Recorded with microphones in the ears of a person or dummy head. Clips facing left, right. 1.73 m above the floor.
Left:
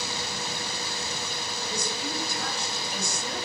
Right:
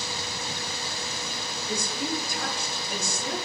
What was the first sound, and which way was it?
A woman speaking, 55° right (ahead or behind).